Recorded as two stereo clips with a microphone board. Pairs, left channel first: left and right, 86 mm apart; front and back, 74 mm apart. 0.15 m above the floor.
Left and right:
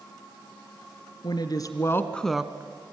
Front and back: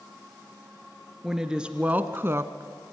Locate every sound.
1.2 s a woman speaking: 95° left, 1.8 m; by 2.9 s 135° right, 1.6 m